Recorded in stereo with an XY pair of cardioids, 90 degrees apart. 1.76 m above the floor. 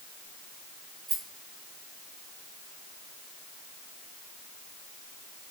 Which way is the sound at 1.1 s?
45° right.